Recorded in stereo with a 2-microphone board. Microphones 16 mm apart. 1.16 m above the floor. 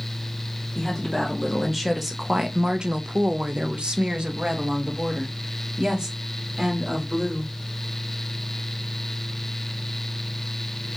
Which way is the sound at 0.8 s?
10° left (ahead or behind).